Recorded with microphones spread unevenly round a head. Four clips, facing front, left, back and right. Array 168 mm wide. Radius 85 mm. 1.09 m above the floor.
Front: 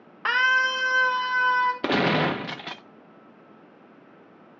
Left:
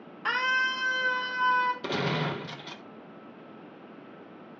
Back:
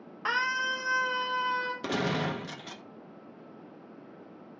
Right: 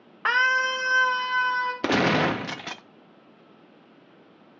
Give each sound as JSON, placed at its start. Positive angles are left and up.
{"t": 0.2, "sound": "a scream", "azimuth_deg": -60, "distance_m": 1.0}
{"t": 1.8, "sound": "a gunshot", "azimuth_deg": -45, "distance_m": 0.7}